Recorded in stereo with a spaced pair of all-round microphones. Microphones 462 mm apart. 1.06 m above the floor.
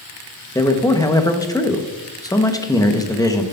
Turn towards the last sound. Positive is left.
turn(degrees=10)  # may be behind; listen again after turning